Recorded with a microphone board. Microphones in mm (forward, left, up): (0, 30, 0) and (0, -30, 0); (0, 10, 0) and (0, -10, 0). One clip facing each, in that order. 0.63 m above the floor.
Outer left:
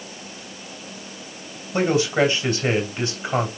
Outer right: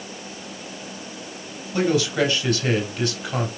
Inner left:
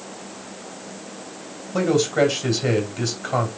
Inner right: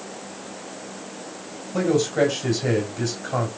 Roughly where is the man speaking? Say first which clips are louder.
Outer left 1 dB, inner left 1 dB; left.